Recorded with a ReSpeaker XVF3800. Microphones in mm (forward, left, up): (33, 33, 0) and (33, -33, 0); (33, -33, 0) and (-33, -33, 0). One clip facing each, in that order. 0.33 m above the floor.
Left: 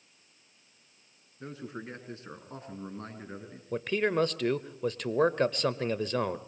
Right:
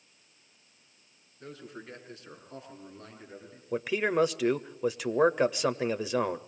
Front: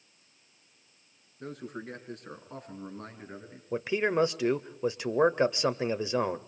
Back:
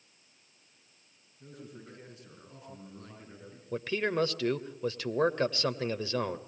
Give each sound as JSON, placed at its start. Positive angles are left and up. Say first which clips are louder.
{"t": 1.4, "sound": "a man speaking", "louder": "left 4 dB, front 8 dB", "azimuth_deg": 20, "distance_m": 4.5}
{"t": 3.7, "sound": "a man speaking", "louder": "right 1 dB, front 3 dB", "azimuth_deg": -25, "distance_m": 0.8}